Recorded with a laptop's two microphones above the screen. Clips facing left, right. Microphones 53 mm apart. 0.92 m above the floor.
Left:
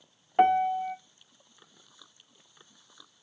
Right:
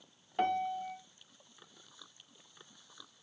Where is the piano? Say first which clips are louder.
Left 10 dB; 35° left (ahead or behind), 0.6 m.